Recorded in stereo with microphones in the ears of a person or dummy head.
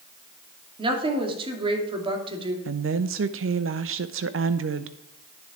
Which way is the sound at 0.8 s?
35° right (ahead or behind).